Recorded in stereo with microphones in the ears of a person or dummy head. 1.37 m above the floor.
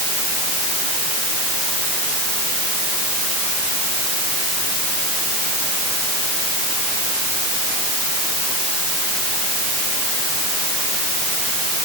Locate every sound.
Only background noise.